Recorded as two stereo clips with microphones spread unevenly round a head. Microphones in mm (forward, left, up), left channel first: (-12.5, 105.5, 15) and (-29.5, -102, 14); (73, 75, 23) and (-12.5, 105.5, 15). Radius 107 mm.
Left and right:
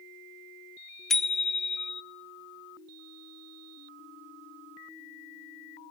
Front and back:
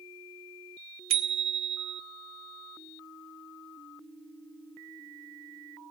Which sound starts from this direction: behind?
A bicycle bell, at 1.1 s.